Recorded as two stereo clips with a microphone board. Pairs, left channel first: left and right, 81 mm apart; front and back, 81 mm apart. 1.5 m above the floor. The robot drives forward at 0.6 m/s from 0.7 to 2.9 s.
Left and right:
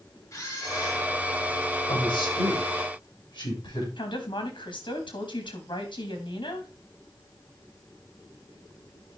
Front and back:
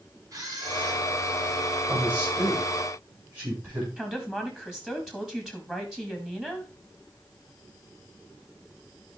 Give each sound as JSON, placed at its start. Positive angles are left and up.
{"t": 0.3, "sound": "a camera shutter", "azimuth_deg": 135, "distance_m": 4.5}
{"t": 1.9, "sound": "a man speaking", "azimuth_deg": 110, "distance_m": 8.0}
{"t": 4.0, "sound": "a woman speaking", "azimuth_deg": 100, "distance_m": 2.5}